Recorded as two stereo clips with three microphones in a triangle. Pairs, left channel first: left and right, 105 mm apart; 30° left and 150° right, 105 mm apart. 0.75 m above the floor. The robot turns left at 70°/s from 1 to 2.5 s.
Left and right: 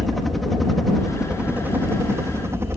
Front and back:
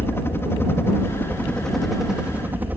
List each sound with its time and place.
0.0 s a helicopter: straight ahead; by 2.8 s 105° right